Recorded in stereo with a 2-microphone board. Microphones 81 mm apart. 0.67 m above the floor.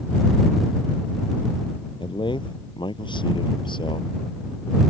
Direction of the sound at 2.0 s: 85° left.